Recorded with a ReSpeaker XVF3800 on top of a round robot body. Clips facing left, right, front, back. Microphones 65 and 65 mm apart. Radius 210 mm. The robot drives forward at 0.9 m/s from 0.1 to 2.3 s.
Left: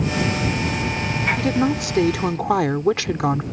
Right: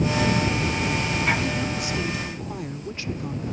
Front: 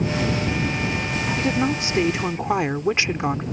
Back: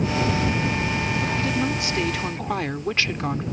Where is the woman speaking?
60° left; by 3.4 s 75° left.